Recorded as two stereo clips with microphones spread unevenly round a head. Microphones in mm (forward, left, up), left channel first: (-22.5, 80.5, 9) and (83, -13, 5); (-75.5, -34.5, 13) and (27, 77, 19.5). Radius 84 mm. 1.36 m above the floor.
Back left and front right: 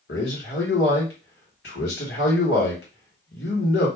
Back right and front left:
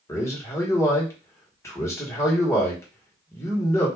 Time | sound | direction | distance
0.1 | a man speaking | 155° left | 1.2 m